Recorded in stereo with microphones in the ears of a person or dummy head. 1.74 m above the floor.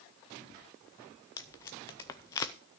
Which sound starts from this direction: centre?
Tape being pulled, at 1.4 s.